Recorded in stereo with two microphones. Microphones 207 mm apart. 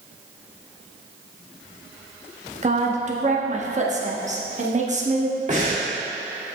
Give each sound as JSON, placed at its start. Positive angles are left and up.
{"t": 2.6, "sound": "a woman speaking", "side_deg": -35, "distance_m": 1.0}
{"t": 5.5, "sound": "breathing", "side_deg": -35, "distance_m": 1.8}